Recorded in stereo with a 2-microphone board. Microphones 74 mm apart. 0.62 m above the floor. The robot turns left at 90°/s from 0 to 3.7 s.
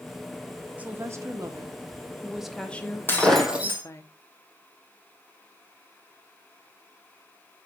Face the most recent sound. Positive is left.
turn(degrees=-25)